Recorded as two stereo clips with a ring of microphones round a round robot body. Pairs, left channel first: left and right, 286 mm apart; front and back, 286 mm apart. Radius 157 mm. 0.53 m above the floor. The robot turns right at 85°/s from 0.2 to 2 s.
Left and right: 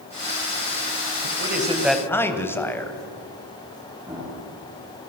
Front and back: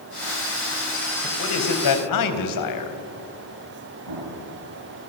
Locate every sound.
1.2 s a man speaking: 55° right, 4 m; by 3.0 s 10° left, 4 m
4.0 s an explosion: 170° right, 7.5 m